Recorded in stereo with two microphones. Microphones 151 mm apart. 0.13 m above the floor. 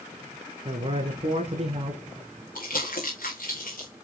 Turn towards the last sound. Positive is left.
turn(degrees=65)  # may be behind; listen again after turning